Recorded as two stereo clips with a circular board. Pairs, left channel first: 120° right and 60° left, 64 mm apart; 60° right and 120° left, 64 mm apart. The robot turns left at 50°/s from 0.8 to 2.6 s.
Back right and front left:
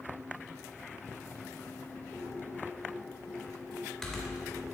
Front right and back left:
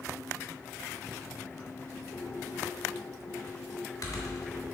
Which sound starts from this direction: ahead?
Typing on a keyboard, at 2.1 s.